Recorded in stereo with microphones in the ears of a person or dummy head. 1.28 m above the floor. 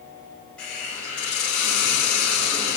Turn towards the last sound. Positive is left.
turn(degrees=5)  # may be behind; listen again after turning